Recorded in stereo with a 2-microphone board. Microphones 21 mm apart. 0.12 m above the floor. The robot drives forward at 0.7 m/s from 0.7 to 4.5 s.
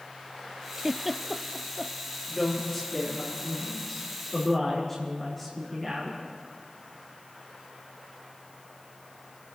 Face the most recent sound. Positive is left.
turn(degrees=10)  # may be behind; listen again after turning